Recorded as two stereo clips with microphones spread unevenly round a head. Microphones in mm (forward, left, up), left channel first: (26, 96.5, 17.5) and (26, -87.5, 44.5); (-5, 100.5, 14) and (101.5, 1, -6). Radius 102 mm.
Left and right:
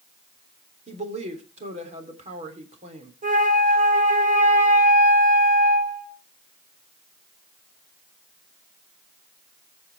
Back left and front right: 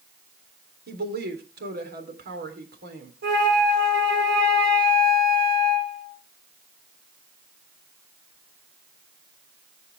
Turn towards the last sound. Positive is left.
turn(degrees=-40)